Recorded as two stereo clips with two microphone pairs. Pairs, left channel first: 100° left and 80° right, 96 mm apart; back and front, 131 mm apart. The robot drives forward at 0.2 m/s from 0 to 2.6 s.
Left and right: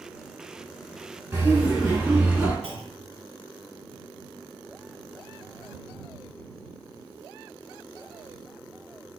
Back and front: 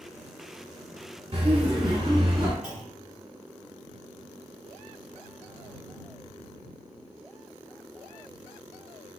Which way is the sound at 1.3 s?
30° right.